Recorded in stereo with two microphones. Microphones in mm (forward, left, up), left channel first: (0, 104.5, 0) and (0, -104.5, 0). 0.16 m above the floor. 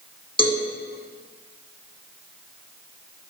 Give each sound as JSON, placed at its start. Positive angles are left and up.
{"t": 0.4, "sound": "a cowbell", "side_deg": 25, "distance_m": 1.5}